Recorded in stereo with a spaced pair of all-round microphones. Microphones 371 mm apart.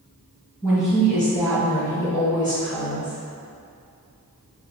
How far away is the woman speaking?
About 0.9 m.